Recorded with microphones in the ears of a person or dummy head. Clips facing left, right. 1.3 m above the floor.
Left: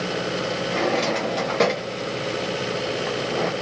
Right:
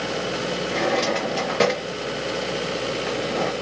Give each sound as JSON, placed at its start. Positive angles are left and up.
{"t": 0.7, "sound": "a drawer", "side_deg": -5, "distance_m": 0.7}